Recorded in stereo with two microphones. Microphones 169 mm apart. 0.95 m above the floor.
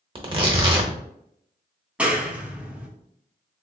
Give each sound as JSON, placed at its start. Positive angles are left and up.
{"t": 0.1, "sound": "tearing paper", "side_deg": -30, "distance_m": 0.7}
{"t": 2.0, "sound": "a clap", "side_deg": -5, "distance_m": 0.7}